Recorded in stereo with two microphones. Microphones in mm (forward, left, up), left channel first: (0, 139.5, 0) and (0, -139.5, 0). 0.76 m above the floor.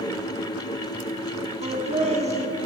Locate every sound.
1.6 s laughter: 25° right (ahead or behind), 1.7 m